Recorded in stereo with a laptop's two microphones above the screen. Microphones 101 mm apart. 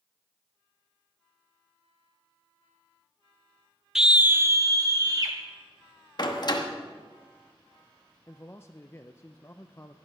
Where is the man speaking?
25° left (ahead or behind), 0.6 m.